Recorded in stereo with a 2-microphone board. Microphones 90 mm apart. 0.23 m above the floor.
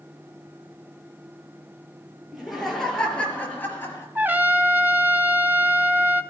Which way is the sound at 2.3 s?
5° right (ahead or behind).